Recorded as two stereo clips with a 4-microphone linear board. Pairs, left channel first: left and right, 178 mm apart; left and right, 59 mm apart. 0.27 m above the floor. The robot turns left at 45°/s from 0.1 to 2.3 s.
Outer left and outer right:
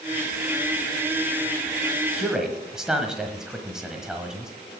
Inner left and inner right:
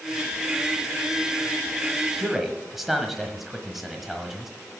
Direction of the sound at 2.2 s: Centre (ahead or behind).